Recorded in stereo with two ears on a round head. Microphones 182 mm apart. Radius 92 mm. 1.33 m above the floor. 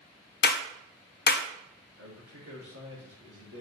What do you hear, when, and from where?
0.4 s a clap: 50° left (ahead or behind), 0.7 m
2.0 s a man speaking: 85° right, 3.5 m